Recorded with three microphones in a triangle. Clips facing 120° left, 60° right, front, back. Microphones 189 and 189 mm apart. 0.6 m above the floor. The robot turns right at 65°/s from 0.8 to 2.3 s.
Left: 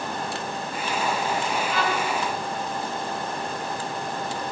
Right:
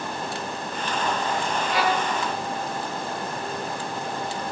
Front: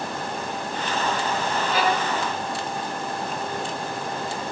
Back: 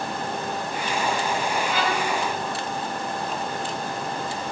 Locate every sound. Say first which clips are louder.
1.7 s a violin: right 4 dB, front 2 dB; 50° right, 1.3 m; by 2.1 s 25° right, 1.3 m